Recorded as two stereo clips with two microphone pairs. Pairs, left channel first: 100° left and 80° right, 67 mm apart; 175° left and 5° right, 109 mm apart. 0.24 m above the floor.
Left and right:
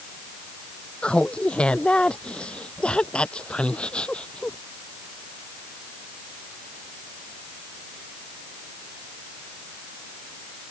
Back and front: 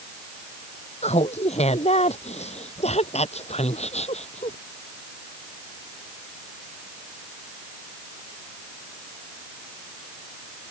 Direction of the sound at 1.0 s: 175° left.